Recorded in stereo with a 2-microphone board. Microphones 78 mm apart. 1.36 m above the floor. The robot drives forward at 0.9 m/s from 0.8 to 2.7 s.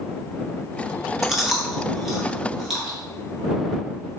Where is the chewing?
5° right (ahead or behind), 1.4 m; by 3.0 s centre (ahead or behind), 2.5 m.